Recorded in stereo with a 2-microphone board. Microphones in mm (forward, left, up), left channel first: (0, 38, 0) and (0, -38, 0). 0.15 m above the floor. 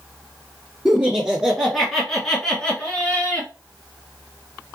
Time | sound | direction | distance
0.8 | laughter | 10° right (ahead or behind) | 2.5 m